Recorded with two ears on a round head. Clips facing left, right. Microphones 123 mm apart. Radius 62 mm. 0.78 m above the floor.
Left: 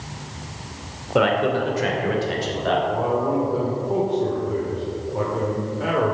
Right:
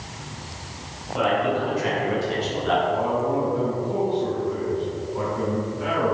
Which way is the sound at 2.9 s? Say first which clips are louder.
Left 1 dB; 55° left (ahead or behind).